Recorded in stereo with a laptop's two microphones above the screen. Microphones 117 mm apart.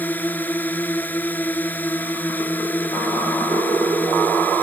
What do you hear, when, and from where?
0.0 s a drone: 15° left (ahead or behind)